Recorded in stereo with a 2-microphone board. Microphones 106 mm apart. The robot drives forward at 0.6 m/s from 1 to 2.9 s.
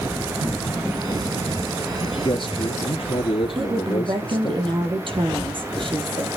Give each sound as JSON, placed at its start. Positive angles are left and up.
{"t": 2.0, "sound": "a man speaking", "side_deg": 50, "distance_m": 2.5}
{"t": 3.5, "sound": "a woman speaking", "side_deg": -55, "distance_m": 3.5}